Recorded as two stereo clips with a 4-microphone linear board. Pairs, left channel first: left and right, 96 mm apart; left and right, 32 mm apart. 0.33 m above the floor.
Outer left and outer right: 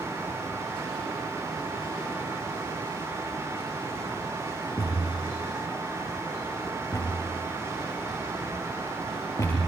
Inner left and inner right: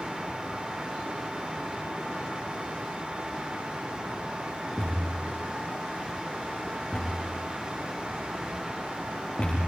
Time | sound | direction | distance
4.8 | a thud | 30° left (ahead or behind) | 10 m